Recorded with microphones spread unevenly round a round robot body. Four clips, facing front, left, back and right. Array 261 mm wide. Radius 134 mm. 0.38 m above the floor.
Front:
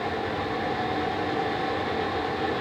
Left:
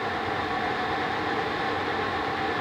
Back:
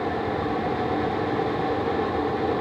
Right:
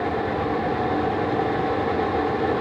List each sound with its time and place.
Only background noise.